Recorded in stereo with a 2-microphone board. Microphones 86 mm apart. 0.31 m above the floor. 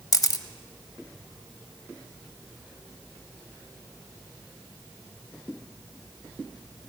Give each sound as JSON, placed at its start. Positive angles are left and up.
{"t": 0.1, "sound": "a camera shutter", "side_deg": 45, "distance_m": 1.1}